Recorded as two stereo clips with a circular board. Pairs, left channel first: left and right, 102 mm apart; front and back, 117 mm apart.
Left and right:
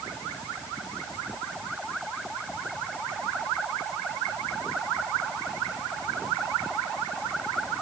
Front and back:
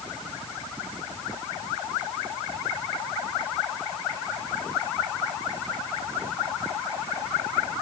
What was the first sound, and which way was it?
Only background noise.